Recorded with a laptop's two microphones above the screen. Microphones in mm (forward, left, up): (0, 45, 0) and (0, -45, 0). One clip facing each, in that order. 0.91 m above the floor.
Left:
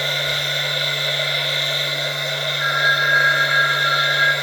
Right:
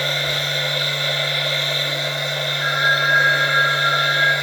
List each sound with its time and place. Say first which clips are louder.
0.0 s a machine running: right 1 dB; 30° right (ahead or behind), 0.8 m
2.6 s a phone ringing: even; 60° left (ahead or behind), 0.9 m